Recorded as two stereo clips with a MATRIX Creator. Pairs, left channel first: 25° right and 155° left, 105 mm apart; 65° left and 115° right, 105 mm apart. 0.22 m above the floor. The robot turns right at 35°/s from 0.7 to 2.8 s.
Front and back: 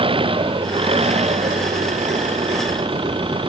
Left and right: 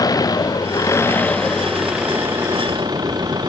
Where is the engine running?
120° left; by 3.5 s 165° right.